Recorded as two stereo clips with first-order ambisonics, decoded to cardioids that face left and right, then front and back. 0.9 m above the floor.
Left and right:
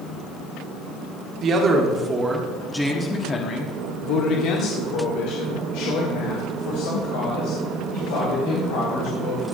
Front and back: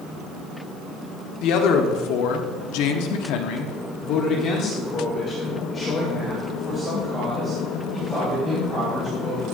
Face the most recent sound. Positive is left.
turn(degrees=85)